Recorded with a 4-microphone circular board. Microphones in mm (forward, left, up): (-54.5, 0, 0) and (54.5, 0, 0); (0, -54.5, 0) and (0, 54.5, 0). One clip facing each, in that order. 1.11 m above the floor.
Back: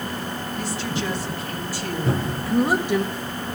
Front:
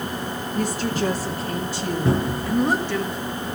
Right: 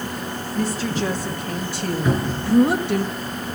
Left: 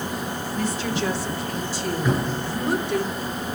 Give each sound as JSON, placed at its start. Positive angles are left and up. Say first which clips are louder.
{"t": 0.6, "sound": "a woman speaking", "louder": "front 6 dB, right 3 dB", "azimuth_deg": -35, "distance_m": 2.5}
{"t": 2.0, "sound": "a cupboard door", "louder": "front 3 dB, right 3 dB", "azimuth_deg": -20, "distance_m": 10.0}